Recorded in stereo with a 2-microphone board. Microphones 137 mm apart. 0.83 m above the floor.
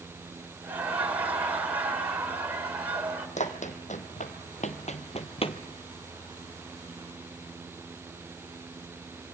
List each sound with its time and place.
0.6 s laughter: 10° right (ahead or behind), 3.5 m
3.4 s running footsteps: 60° left (ahead or behind), 2.5 m; by 5.6 s 40° left (ahead or behind), 1.3 m